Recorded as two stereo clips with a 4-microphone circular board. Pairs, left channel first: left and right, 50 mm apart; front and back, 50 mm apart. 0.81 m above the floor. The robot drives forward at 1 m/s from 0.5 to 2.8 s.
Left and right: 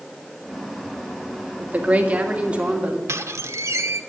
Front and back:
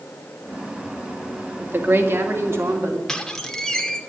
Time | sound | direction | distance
1.6 | a woman speaking | 140° right | 1.6 m
3.1 | a squeak | 80° right | 1.2 m